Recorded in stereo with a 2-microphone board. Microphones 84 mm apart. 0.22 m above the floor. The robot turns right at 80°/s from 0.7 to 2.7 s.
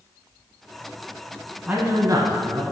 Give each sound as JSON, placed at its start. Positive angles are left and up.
{"t": 1.7, "sound": "a man speaking", "azimuth_deg": -165, "distance_m": 1.6}